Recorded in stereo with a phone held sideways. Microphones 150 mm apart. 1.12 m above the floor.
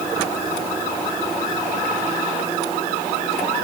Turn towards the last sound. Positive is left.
No sound to turn to.